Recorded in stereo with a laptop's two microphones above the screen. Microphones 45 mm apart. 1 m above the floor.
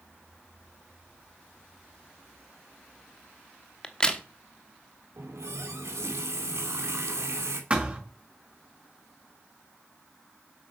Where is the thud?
25° right (ahead or behind), 6 m.